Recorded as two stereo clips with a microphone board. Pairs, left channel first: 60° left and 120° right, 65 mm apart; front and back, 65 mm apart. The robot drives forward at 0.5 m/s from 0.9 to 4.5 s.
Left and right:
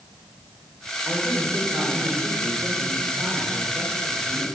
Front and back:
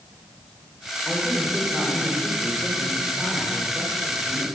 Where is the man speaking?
85° right, 7.5 m; by 4.5 s 100° right, 7.5 m.